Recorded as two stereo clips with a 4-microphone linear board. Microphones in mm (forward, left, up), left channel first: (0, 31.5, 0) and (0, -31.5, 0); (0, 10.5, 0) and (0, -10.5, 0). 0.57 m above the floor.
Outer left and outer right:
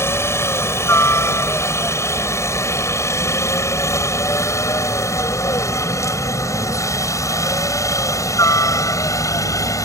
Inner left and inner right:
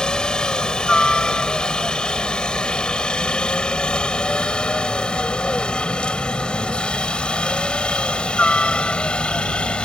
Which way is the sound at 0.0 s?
45° left (ahead or behind).